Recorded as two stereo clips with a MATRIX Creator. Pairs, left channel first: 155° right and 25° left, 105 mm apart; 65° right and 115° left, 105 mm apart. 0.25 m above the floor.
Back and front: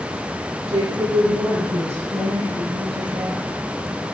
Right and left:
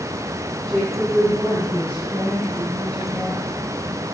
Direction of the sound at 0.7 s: 20° left.